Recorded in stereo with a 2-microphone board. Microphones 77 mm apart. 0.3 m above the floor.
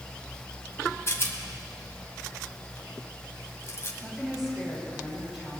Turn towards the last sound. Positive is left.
turn(degrees=-5)  # may be behind; listen again after turning